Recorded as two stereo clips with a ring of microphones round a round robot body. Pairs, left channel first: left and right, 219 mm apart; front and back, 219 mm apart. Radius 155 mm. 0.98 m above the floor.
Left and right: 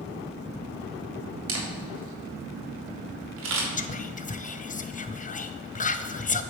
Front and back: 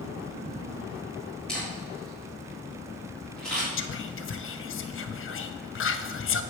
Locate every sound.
1.5 s a camera shutter: 85° right, 1.6 m
3.8 s whispering: 30° left, 0.8 m